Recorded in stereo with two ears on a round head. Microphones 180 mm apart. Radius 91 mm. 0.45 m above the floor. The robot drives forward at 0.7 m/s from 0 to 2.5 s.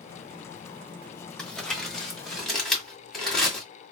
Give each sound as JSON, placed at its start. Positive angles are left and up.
{"t": 1.4, "sound": "crumpling", "side_deg": 5, "distance_m": 1.0}